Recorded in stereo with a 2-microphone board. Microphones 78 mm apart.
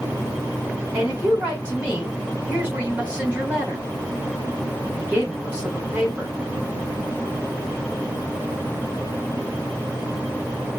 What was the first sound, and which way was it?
A woman speaking, 20° right (ahead or behind).